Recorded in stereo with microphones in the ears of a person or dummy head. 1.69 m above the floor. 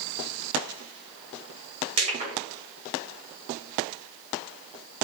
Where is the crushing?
35° right (ahead or behind), 2 m.